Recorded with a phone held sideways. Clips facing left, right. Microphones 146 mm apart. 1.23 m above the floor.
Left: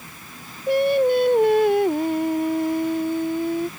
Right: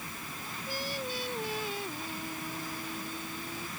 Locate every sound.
0.7 s singing: 70° left (ahead or behind)